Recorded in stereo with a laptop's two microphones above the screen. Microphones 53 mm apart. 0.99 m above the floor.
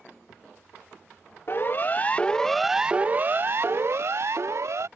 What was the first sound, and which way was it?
A siren, 50° left (ahead or behind).